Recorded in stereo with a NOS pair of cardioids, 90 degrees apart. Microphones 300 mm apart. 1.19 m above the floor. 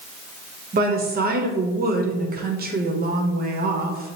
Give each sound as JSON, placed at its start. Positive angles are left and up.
{"t": 0.7, "sound": "a woman speaking", "azimuth_deg": -30, "distance_m": 0.9}